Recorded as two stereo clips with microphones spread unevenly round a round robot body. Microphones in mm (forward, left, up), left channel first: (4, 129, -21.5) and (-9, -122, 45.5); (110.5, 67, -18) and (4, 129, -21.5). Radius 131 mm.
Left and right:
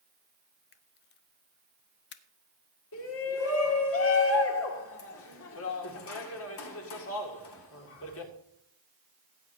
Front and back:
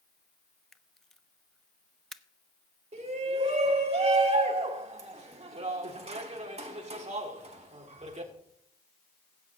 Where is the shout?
120° left, 2.0 m.